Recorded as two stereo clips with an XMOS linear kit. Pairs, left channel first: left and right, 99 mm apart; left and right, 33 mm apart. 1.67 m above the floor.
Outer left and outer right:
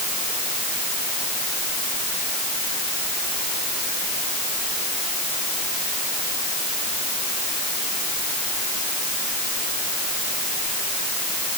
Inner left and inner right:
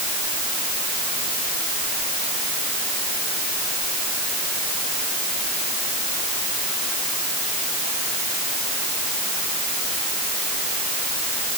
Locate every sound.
Only background noise.